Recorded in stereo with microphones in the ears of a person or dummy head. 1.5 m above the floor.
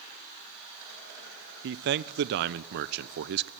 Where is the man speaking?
60° right (ahead or behind), 0.7 m.